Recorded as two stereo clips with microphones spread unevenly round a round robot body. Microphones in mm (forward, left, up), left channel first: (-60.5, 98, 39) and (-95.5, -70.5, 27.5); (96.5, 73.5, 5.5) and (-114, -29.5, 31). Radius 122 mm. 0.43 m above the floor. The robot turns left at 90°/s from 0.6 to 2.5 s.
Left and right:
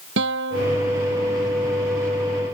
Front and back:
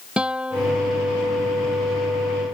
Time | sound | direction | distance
0.2 | a guitar | 70° right | ?